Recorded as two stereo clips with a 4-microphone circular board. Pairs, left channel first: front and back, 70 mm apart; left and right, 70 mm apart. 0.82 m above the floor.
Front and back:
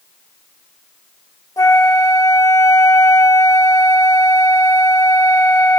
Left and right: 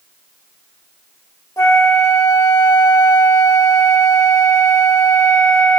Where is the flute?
45° left, 0.7 m.